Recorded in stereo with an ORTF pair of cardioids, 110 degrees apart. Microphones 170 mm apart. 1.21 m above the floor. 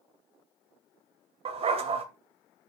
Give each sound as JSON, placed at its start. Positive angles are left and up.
{"t": 1.4, "sound": "a dog barking", "azimuth_deg": -35, "distance_m": 2.5}